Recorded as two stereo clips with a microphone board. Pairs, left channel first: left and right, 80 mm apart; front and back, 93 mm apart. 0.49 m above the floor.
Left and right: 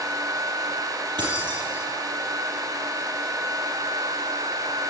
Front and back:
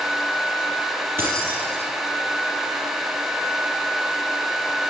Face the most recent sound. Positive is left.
turn(degrees=-115)